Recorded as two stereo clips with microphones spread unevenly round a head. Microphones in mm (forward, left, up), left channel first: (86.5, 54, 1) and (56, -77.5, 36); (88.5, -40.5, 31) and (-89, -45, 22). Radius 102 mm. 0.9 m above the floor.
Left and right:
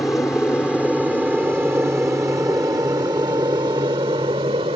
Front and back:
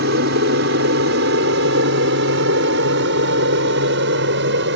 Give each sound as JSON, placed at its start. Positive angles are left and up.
{"t": 0.0, "sound": "an aircraft", "azimuth_deg": 160}